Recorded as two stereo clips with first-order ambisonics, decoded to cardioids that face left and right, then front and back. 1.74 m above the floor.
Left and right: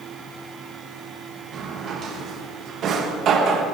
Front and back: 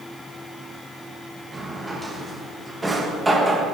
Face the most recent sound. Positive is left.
turn(degrees=-105)